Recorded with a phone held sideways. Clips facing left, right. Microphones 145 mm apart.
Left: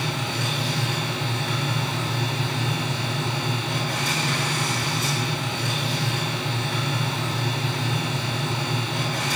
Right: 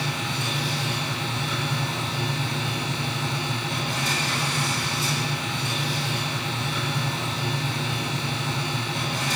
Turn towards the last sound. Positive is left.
turn(degrees=70)  # may be behind; listen again after turning